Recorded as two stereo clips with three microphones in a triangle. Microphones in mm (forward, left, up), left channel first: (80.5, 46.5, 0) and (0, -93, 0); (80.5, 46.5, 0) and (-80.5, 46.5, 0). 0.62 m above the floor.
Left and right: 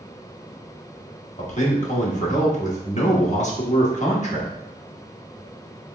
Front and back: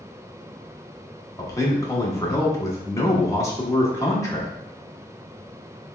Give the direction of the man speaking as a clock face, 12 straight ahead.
10 o'clock.